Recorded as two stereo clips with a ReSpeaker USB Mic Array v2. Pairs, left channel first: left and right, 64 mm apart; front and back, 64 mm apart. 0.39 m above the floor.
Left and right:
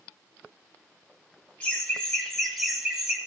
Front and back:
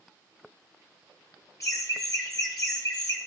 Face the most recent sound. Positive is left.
turn(degrees=-10)